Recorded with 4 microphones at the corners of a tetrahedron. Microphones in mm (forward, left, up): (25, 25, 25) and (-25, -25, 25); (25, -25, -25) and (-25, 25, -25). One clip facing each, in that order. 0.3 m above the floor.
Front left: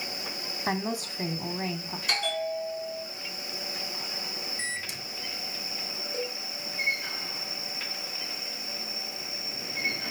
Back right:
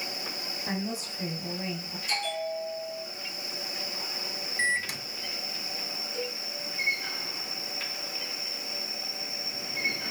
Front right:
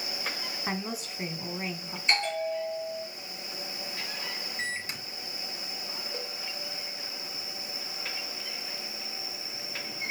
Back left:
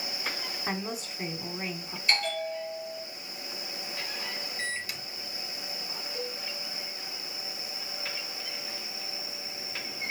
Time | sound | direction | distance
0.7 | a woman speaking | 45° left | 2.5 m
2.1 | a bell | 20° left | 5 m
4.6 | a microwave | 105° right | 2 m
6.1 | a cowbell | 5° left | 4.5 m